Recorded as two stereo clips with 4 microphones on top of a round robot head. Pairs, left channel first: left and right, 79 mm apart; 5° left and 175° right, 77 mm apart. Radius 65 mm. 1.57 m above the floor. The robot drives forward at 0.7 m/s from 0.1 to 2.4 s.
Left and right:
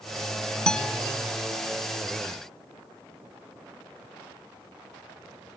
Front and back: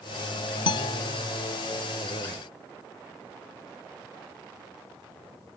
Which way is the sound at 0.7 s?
10° left.